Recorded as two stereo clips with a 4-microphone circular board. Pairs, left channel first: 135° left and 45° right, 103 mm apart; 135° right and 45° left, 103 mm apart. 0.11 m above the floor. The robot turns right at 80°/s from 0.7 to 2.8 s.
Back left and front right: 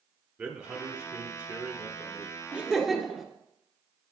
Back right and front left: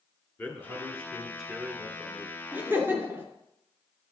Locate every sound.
0.4 s a man speaking: 85° right, 1.2 m; by 2.4 s 45° left, 1.2 m
2.5 s laughter: 15° left, 1.4 m; by 3.2 s 35° left, 1.4 m